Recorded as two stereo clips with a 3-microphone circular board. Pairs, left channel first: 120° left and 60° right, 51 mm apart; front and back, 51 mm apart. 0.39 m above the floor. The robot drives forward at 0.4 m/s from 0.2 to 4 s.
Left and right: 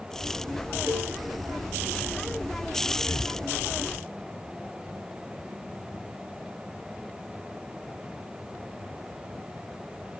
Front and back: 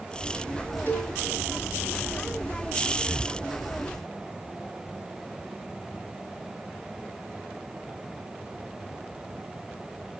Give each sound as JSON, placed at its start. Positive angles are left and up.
{"t": 0.9, "sound": "a cowbell", "azimuth_deg": -50, "distance_m": 3.5}
{"t": 3.1, "sound": "breathing", "azimuth_deg": 100, "distance_m": 1.4}